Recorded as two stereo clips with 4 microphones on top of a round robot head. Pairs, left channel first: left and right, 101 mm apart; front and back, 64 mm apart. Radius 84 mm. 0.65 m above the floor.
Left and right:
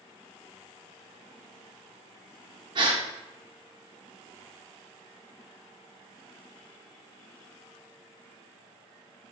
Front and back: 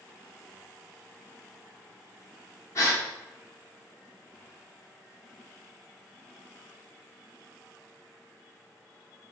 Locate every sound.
2.8 s a gasp: 45° right, 0.9 m